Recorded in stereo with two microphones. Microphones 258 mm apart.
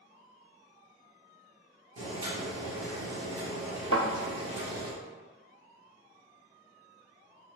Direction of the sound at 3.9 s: 55° left (ahead or behind).